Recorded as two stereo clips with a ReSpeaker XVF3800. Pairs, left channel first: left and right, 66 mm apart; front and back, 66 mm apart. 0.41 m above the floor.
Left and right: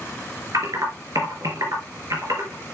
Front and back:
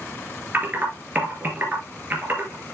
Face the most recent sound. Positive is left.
turn(degrees=-120)